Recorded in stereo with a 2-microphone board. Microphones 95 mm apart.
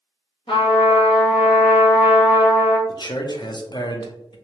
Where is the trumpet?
65° left (ahead or behind), 1.3 m.